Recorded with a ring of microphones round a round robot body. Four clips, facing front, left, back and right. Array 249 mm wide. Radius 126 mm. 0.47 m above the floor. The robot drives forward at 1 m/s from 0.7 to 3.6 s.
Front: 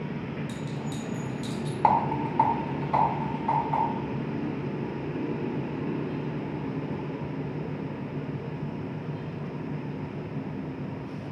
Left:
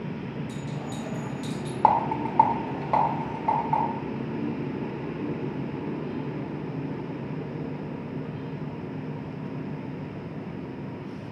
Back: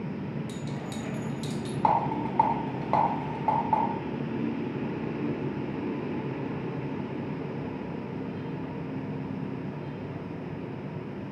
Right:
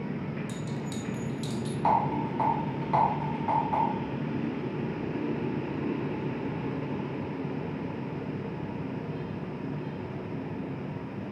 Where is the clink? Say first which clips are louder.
Left 1 dB, front 1 dB; 105° right, 1.0 m; by 1.7 s 145° right, 1.6 m.